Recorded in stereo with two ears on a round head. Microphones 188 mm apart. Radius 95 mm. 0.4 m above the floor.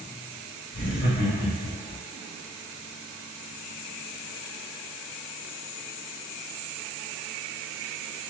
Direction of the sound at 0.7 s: 40° left (ahead or behind).